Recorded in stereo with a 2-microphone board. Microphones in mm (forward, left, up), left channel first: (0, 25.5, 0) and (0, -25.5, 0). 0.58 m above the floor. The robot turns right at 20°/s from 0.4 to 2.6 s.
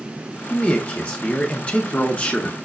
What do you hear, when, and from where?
0.5 s a man speaking: 25° left (ahead or behind), 0.6 m